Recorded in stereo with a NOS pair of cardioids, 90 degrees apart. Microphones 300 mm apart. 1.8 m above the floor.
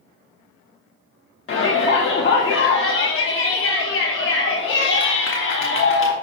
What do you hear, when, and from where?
1.5 s a shout: 40° left, 1.0 m